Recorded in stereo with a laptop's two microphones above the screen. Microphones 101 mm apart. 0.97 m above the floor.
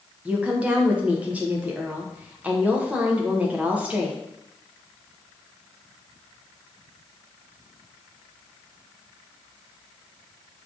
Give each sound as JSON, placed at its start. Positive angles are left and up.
{"t": 0.2, "sound": "a woman speaking", "side_deg": -10, "distance_m": 0.5}